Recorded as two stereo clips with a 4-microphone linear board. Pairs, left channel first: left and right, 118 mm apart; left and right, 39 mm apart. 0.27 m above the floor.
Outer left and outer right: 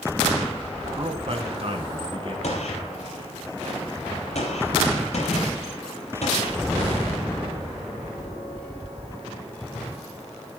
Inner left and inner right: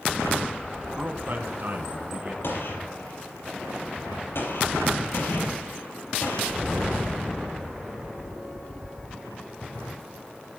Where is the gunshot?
65° left (ahead or behind), 5.5 m.